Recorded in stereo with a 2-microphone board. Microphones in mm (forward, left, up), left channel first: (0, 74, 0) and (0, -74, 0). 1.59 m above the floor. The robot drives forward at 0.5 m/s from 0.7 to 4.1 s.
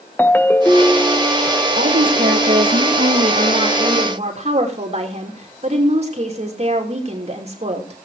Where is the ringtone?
10° left (ahead or behind), 0.5 m; by 1.2 s 15° left (ahead or behind), 0.5 m.